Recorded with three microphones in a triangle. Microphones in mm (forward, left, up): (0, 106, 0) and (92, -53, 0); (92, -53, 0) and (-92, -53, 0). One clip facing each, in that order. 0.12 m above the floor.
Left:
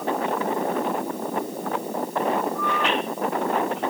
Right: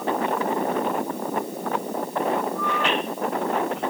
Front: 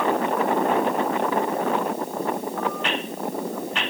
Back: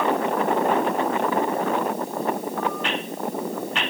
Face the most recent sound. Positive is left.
No sound to turn to.